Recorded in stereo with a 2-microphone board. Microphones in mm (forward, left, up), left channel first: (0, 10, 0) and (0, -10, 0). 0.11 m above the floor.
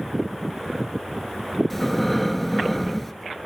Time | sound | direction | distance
1.7 | breathing | 5° left (ahead or behind) | 0.5 m